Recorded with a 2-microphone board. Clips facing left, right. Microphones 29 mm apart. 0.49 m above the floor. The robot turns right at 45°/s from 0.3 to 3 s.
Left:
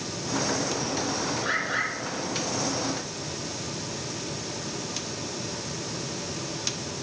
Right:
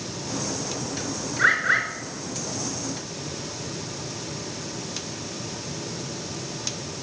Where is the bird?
80° right, 5.5 m; by 1.9 s 60° right (ahead or behind), 5.5 m.